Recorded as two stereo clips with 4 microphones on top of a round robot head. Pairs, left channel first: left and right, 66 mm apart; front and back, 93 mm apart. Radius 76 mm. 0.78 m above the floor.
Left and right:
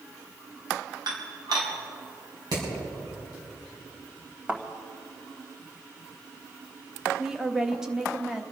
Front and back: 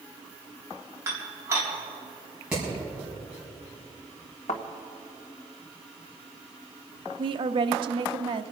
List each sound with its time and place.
1.1 s dishes clattering: 115° right, 3.5 m
2.5 s hammering: 100° right, 6 m
4.5 s a thud: 25° right, 1.7 m
7.2 s a woman speaking: 170° right, 0.8 m